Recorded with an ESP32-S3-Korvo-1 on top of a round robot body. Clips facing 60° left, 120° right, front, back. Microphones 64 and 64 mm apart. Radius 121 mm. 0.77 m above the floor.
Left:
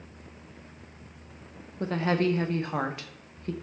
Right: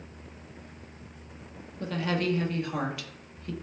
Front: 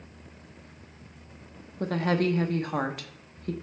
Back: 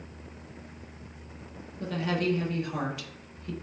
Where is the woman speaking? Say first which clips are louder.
Left 3 dB, front 4 dB; 15° left, 0.7 m.